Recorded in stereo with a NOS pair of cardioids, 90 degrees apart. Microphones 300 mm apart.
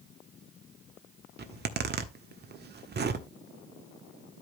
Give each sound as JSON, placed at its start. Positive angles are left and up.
{"t": 1.4, "sound": "a zipper", "azimuth_deg": -35, "distance_m": 1.3}